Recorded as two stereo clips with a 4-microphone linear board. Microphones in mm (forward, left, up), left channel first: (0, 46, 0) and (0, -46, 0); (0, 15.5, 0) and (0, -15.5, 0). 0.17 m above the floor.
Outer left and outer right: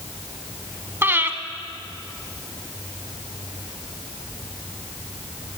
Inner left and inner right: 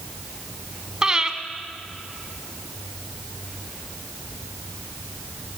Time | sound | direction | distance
1.0 | breathing | 25° right (ahead or behind) | 0.7 m